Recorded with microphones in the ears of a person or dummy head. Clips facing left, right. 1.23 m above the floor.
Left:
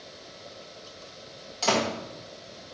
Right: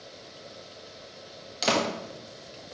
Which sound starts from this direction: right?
A door slam, at 1.6 s.